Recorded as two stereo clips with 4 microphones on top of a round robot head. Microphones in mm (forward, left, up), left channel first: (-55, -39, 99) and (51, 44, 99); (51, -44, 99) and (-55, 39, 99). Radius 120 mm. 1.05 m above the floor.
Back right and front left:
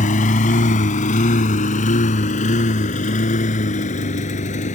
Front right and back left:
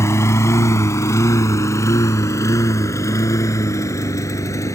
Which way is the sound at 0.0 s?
110° right.